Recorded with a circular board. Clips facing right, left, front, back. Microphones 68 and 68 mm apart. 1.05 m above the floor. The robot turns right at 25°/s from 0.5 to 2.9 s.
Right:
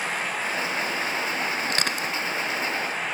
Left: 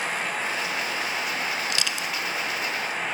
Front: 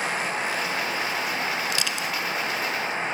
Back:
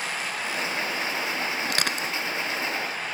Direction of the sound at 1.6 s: 140° right.